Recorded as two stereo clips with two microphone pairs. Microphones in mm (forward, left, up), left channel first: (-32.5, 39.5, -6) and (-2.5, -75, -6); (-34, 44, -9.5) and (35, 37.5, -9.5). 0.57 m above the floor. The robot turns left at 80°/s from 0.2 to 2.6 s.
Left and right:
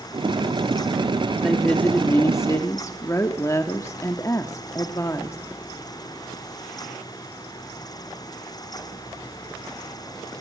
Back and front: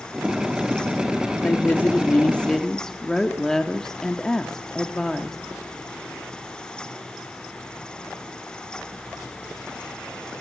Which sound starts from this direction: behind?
A woman speaking, at 1.4 s.